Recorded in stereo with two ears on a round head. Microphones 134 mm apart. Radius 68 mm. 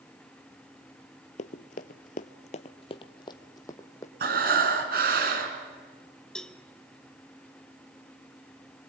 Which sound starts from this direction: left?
Running footsteps, at 1.4 s.